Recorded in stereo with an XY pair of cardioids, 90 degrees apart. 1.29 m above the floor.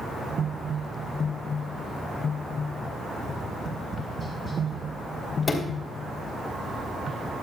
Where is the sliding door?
35° left, 3 m.